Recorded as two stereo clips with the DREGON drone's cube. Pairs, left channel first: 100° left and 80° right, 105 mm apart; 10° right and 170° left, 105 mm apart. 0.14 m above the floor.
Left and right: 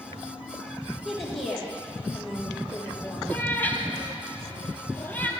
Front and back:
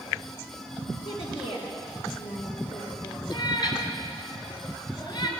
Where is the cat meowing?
30° left, 1.4 m.